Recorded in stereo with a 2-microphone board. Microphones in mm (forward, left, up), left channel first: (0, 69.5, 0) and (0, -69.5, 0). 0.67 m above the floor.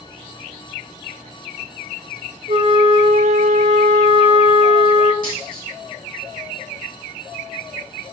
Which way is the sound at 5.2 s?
90° right.